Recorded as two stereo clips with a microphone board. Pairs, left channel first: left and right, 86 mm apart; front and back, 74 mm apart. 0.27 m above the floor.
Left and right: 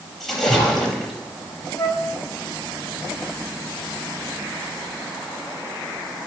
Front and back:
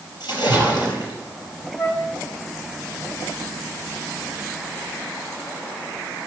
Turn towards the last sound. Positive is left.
turn(degrees=25)